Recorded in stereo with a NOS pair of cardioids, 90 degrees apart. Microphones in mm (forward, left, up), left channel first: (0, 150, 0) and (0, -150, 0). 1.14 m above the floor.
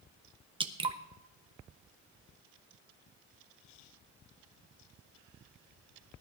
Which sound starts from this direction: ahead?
Dripping, at 0.6 s.